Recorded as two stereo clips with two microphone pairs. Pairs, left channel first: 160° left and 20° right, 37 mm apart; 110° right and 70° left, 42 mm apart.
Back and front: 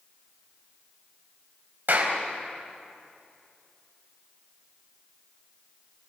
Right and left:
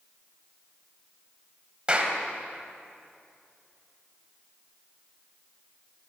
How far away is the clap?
About 3.5 m.